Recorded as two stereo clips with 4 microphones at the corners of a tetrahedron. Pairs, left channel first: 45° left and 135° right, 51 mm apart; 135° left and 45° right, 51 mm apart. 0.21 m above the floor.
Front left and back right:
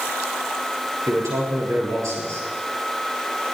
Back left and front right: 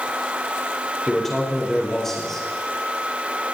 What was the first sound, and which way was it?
A man speaking, 140° right.